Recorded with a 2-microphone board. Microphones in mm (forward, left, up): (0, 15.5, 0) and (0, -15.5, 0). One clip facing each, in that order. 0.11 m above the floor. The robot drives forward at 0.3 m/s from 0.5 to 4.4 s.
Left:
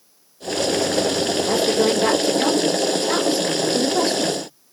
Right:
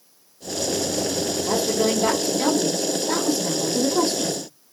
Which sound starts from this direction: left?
A woman speaking, at 1.4 s.